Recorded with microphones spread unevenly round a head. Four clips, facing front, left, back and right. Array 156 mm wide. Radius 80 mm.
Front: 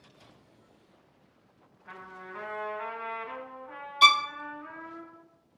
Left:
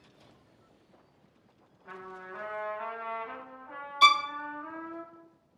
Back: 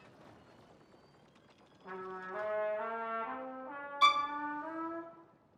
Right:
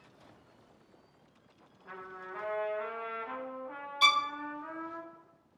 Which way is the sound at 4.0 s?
35° left.